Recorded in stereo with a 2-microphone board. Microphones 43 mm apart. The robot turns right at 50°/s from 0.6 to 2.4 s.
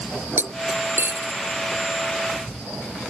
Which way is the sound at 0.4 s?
50° right (ahead or behind).